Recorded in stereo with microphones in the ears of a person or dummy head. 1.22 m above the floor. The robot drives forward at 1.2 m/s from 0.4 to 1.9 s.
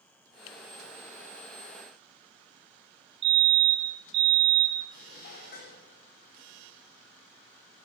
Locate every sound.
3.2 s a fire alarm: 30° right (ahead or behind), 1.3 m
4.9 s dishes clattering: 55° left (ahead or behind), 1.6 m